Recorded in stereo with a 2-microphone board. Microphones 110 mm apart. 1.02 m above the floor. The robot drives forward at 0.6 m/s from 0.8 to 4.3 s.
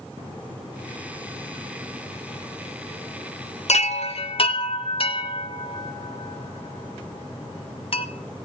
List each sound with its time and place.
3.7 s a chime: 90° left, 0.5 m; by 8.1 s 55° left (ahead or behind), 0.6 m